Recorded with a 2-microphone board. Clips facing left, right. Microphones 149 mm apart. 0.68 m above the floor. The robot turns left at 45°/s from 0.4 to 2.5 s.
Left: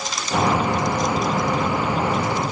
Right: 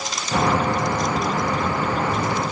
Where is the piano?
I don't hear a piano.